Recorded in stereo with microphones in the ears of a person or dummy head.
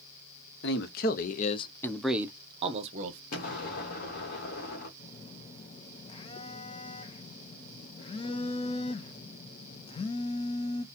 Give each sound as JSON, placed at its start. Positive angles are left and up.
{"t": 0.6, "sound": "a man speaking", "side_deg": 60, "distance_m": 1.1}
{"t": 3.3, "sound": "an explosion", "side_deg": 55, "distance_m": 1.7}
{"t": 5.0, "sound": "a phone buzzing", "side_deg": 35, "distance_m": 0.6}